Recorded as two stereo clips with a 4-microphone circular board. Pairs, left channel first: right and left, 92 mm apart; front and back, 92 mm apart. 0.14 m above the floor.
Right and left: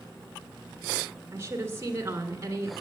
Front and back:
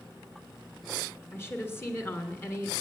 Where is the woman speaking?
50° left, 2 m.